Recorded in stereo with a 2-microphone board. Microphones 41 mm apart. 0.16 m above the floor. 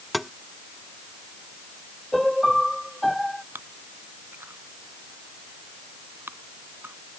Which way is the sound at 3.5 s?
60° right (ahead or behind).